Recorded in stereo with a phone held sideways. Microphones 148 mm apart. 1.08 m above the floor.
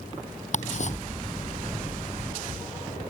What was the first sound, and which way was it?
Ticking, 50° left (ahead or behind).